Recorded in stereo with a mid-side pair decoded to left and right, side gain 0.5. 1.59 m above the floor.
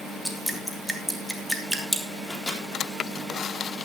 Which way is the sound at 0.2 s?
Straight ahead.